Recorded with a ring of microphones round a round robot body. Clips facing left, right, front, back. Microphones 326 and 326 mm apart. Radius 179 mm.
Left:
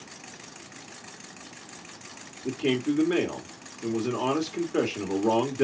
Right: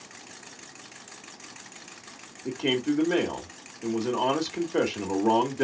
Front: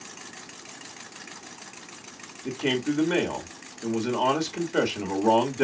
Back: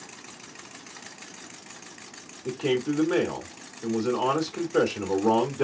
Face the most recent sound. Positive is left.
turn(degrees=0)